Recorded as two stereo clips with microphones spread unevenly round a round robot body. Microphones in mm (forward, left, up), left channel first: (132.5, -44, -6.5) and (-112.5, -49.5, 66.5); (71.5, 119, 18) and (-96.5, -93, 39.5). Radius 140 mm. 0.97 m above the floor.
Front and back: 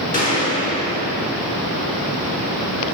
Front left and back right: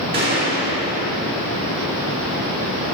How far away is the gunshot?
About 5.5 m.